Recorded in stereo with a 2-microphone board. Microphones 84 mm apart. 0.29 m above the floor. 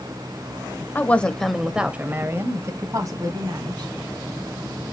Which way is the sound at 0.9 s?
20° left (ahead or behind).